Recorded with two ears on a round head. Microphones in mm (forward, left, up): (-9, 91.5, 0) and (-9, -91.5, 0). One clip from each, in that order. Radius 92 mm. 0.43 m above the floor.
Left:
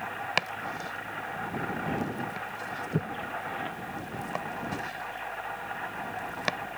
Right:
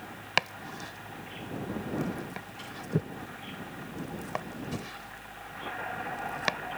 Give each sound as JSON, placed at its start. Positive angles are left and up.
{"t": 0.4, "sound": "chopping", "side_deg": -5}